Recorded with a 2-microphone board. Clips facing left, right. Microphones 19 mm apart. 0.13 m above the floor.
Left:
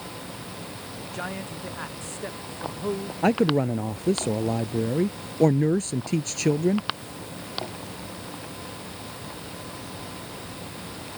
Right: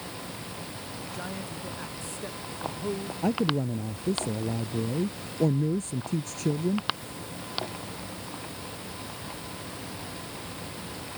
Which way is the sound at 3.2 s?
55° left (ahead or behind).